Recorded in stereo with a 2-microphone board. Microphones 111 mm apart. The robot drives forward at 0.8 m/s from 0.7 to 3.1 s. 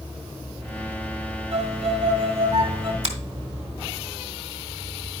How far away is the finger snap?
About 1.8 m.